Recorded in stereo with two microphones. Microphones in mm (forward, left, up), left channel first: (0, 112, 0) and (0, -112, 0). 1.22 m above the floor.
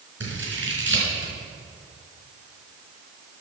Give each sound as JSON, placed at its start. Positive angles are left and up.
{"t": 0.2, "sound": "scissors", "side_deg": -55, "distance_m": 4.5}